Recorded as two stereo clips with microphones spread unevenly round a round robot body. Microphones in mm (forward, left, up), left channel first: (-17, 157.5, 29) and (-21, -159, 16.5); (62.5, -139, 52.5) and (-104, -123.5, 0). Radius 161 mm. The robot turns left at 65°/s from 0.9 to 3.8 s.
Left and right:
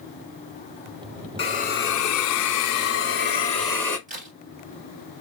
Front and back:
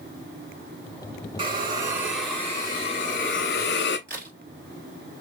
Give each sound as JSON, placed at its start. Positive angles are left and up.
{"t": 1.4, "sound": "a hiss", "azimuth_deg": 160, "distance_m": 1.0}
{"t": 4.1, "sound": "a crack", "azimuth_deg": -160, "distance_m": 2.0}